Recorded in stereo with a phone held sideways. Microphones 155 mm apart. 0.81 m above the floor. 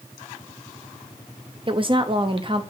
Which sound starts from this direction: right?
A woman speaking, at 1.7 s.